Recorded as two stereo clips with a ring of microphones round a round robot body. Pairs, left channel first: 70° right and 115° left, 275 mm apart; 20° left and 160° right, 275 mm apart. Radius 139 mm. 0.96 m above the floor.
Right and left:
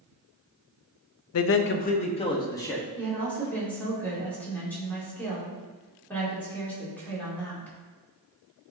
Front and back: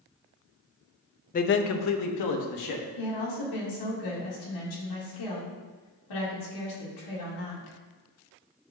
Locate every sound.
1.3 s a man speaking: 40° right, 0.6 m; by 2.8 s 15° left, 1.5 m
3.0 s a woman speaking: 15° left, 2.5 m